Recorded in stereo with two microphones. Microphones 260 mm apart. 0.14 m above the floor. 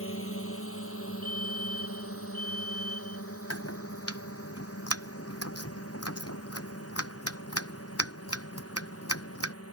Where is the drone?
55° left (ahead or behind); by 9.7 s 60° left (ahead or behind).